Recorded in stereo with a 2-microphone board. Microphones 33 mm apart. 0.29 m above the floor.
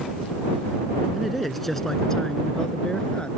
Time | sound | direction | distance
1.1 | a man speaking | 5° right (ahead or behind) | ?